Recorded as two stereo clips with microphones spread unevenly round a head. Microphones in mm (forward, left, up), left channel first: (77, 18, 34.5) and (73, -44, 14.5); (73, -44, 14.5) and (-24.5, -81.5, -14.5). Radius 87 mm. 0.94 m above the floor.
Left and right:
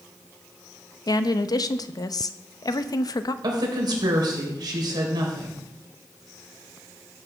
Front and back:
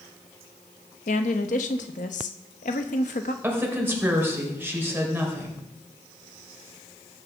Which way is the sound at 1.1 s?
55° left.